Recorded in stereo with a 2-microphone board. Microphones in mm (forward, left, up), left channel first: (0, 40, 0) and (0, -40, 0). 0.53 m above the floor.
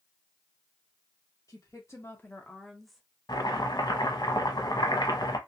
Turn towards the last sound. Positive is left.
turn(degrees=60)  # may be behind; listen again after turning